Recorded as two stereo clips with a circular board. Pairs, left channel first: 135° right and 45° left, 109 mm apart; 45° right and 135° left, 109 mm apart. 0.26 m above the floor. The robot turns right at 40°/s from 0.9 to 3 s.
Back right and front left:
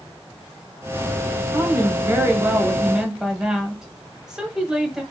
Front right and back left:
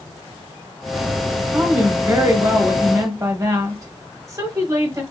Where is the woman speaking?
65° left, 1.1 m; by 5.0 s 125° left, 1.1 m.